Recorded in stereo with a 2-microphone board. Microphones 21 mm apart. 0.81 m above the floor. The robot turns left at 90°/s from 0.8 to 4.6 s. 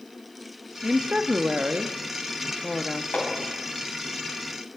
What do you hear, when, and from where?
0.8 s a woman speaking: 25° right, 1.0 m; by 3.0 s 135° left, 1.0 m
3.1 s hammering: 75° left (ahead or behind), 5 m; by 3.3 s 85° left, 5 m